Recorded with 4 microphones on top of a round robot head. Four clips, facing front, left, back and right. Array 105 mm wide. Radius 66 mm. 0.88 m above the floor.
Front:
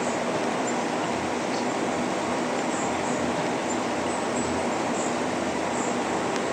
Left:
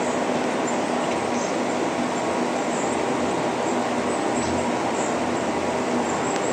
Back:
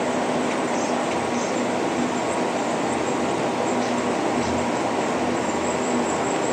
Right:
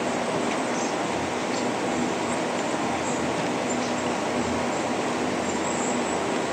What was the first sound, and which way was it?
Only background noise.